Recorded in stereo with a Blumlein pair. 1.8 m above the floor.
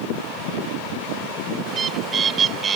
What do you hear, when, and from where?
1.7 s a bird: 20° right